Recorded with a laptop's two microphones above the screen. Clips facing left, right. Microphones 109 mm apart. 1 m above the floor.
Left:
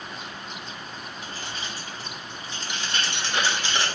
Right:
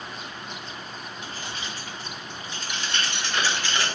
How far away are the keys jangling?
About 2 m.